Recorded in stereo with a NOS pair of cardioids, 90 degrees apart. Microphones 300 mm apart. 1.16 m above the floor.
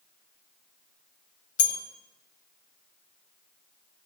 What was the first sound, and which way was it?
A bell, 55° left.